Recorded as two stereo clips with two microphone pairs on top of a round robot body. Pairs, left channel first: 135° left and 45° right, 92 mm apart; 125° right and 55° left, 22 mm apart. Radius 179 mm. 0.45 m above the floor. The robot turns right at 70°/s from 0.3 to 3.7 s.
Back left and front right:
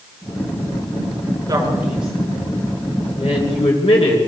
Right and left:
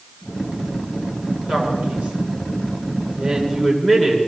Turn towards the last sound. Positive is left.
turn(degrees=160)